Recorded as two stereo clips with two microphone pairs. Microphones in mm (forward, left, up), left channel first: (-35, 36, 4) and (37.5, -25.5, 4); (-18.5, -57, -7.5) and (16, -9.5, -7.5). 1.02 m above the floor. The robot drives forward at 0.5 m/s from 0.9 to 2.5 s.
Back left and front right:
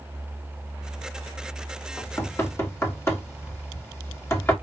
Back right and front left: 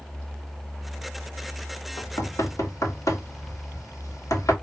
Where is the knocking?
150° right, 0.9 m; by 4.5 s 155° right, 1.1 m.